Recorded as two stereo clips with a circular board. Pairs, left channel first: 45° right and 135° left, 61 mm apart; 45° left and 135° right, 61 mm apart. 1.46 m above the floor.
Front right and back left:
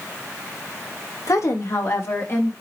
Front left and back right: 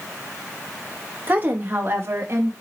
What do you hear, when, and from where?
1.3 s a woman speaking: 75° right, 1.8 m; by 2.5 s 95° right, 2 m